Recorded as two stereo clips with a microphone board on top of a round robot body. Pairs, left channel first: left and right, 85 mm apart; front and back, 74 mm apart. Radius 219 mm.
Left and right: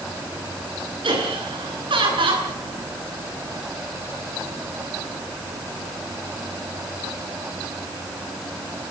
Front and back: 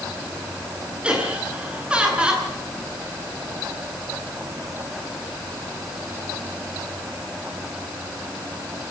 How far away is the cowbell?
I don't hear a cowbell.